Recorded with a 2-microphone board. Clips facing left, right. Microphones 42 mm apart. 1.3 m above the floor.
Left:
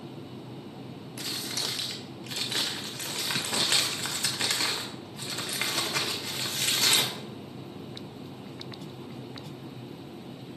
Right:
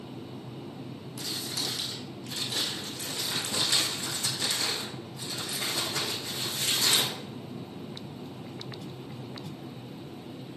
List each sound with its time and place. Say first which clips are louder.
1.2 s crumpling: left 1 dB; 80° left, 1.2 m